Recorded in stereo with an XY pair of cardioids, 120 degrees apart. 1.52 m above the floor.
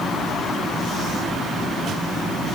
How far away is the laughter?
I don't hear laughter.